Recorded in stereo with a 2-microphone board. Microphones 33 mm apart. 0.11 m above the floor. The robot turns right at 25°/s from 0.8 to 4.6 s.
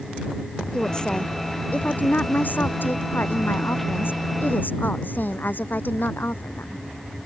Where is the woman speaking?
20° left; by 6.8 s 115° left.